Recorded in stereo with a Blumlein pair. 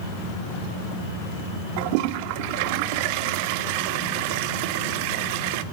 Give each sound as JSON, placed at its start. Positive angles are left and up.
{"t": 1.8, "sound": "a toilet flushing", "azimuth_deg": -45, "distance_m": 1.2}